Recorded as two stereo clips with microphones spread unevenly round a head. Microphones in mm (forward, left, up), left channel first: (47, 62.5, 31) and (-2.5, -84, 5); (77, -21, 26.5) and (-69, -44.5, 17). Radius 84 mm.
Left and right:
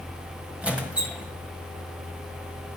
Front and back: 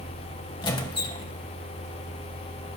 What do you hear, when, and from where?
0.6 s a squeak: 15° right, 1.6 m